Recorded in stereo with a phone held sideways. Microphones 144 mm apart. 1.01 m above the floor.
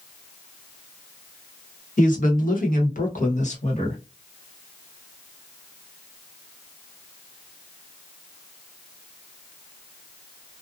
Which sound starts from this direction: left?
A woman speaking, at 2.0 s.